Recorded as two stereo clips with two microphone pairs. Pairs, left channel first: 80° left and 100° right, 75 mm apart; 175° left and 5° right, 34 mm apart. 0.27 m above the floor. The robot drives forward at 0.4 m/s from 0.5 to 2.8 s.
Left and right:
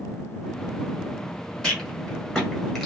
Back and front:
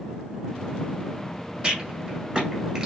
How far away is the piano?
No piano in this recording.